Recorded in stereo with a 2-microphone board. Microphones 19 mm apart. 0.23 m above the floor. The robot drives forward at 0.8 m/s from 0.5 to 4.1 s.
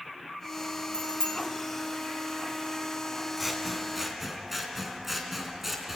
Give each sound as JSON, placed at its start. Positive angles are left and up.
{"t": 0.9, "sound": "a bicycle bell", "side_deg": 35, "distance_m": 4.0}
{"t": 3.4, "sound": "scissors", "side_deg": -10, "distance_m": 2.5}